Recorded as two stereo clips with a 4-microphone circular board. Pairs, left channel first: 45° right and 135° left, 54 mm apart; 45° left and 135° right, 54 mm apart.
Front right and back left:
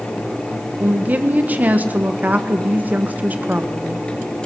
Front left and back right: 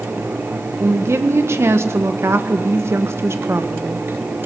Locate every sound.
0.8 s a woman speaking: 165° right, 1.6 m